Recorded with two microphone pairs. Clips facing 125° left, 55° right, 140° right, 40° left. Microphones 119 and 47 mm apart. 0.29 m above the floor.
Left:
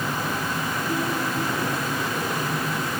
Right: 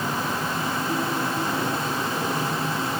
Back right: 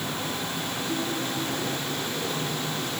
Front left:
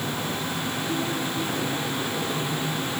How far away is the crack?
No crack in this recording.